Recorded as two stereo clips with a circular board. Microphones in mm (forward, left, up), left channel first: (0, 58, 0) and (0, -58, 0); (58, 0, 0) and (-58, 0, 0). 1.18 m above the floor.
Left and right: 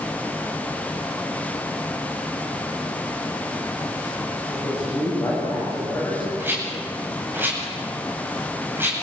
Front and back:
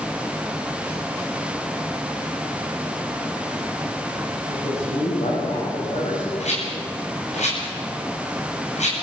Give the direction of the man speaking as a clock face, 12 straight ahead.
11 o'clock.